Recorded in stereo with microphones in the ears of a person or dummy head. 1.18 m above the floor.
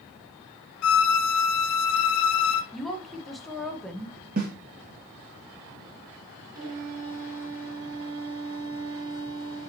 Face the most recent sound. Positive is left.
turn(degrees=-20)  # may be behind; listen again after turning